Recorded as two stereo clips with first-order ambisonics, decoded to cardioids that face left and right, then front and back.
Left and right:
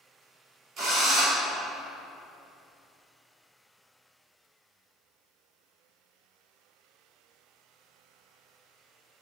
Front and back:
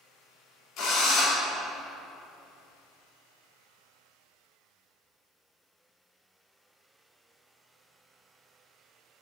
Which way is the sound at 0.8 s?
40° right.